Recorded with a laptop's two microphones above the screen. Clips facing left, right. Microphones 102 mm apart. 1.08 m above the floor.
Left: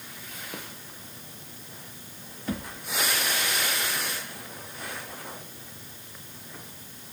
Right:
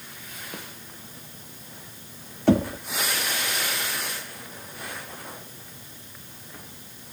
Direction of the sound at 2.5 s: 75° right (ahead or behind).